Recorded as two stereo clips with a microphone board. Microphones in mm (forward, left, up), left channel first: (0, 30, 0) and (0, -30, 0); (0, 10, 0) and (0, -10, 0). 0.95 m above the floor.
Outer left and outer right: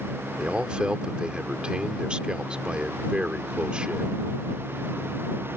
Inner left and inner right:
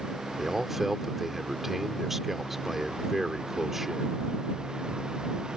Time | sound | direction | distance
0.4 | a man speaking | 15° right (ahead or behind) | ?